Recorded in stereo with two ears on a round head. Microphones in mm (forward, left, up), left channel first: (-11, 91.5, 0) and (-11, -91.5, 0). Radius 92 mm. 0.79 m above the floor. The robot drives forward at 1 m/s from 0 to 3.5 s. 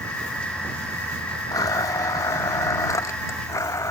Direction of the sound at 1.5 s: 20° left (ahead or behind).